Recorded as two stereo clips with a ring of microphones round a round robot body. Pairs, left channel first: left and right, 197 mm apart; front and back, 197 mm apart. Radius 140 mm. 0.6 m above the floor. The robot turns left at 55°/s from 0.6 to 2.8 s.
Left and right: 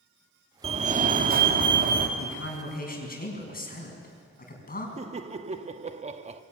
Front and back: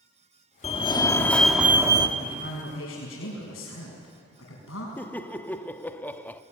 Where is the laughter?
75° right, 0.9 m.